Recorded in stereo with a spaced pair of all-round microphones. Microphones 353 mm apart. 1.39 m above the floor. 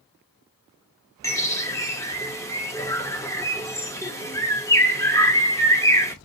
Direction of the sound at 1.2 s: 10° left (ahead or behind).